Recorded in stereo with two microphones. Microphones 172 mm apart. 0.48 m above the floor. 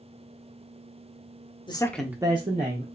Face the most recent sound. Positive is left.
turn(degrees=-50)  # may be behind; listen again after turning